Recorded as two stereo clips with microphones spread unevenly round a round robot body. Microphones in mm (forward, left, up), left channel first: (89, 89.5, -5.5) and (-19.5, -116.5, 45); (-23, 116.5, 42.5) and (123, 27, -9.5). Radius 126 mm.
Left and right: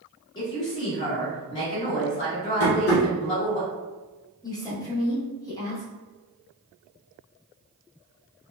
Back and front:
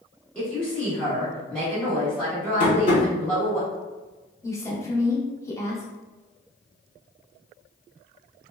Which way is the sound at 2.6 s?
115° left.